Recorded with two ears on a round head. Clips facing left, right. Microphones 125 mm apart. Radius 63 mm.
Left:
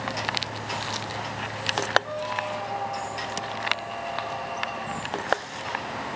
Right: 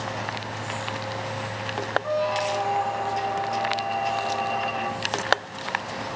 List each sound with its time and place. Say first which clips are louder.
2.0 s a squeak: right 6 dB; 65° right (ahead or behind), 0.6 m